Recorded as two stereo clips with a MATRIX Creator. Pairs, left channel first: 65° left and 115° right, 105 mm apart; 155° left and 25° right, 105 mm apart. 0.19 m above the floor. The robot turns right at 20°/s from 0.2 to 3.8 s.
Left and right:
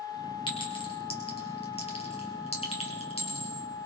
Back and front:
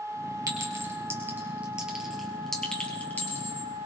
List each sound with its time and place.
0.5 s a clink: 30° left, 3 m; by 3.7 s 95° left, 3 m